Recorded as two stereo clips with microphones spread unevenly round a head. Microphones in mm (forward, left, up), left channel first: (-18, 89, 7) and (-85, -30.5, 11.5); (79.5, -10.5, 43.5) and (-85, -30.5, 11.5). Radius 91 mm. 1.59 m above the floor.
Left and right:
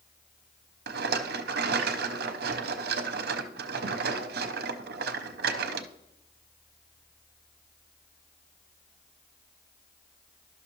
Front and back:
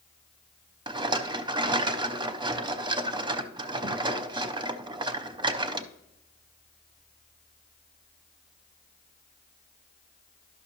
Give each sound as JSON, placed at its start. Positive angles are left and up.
{"t": 0.9, "sound": "a rattle", "azimuth_deg": -110, "distance_m": 0.5}